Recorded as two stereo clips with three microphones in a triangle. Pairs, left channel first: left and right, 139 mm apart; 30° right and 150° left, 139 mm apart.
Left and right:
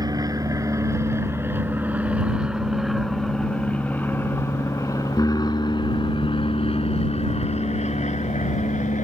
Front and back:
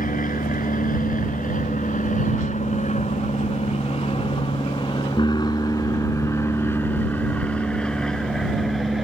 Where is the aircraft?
30° right; by 9.1 s 60° left.